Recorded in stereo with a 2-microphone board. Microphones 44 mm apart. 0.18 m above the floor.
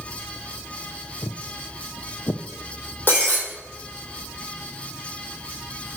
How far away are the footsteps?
About 0.6 m.